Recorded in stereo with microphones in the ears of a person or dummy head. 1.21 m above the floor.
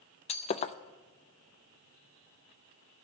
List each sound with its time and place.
0.3 s breaking glass: 35° left (ahead or behind), 0.5 m